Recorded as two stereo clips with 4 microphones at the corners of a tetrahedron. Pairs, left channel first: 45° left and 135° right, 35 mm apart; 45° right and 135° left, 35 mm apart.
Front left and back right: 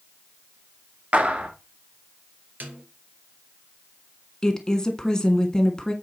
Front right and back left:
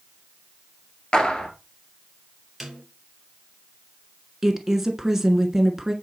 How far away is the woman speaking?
About 1.4 m.